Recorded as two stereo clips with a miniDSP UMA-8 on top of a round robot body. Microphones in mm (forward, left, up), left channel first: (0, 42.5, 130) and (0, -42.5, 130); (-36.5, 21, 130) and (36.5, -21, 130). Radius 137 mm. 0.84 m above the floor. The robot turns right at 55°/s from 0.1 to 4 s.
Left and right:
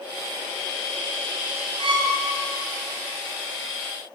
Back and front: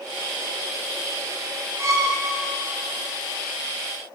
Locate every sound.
1.8 s a violin: 90° right, 3 m; by 2.2 s 70° right, 3 m